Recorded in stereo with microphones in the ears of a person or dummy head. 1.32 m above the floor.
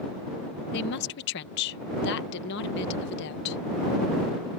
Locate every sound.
0.7 s a woman speaking: 60° left (ahead or behind)